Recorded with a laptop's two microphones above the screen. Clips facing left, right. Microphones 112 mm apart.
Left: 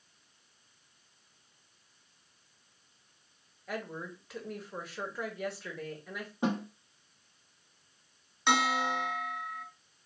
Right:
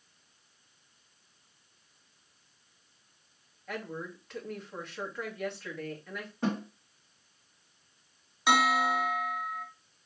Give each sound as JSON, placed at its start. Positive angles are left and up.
{"t": 3.7, "sound": "a woman speaking", "side_deg": 5, "distance_m": 1.5}
{"t": 6.4, "sound": "a snare drum", "side_deg": 15, "distance_m": 1.1}
{"t": 8.5, "sound": "a bell", "side_deg": -5, "distance_m": 0.6}